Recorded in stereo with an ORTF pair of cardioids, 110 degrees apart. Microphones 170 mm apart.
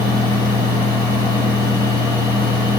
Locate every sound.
0.0 s a fan: 25° left, 1.3 m